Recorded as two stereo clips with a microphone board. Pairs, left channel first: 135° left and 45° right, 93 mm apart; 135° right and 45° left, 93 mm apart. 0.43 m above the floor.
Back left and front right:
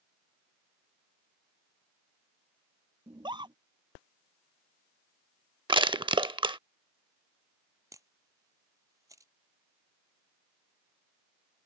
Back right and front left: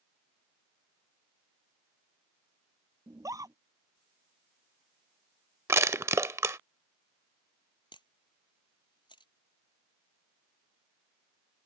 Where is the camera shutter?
100° right.